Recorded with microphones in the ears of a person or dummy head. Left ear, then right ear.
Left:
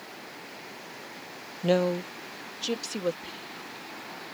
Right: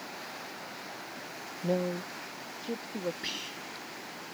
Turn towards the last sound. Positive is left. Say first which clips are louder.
# right 3 dB
turn(degrees=-80)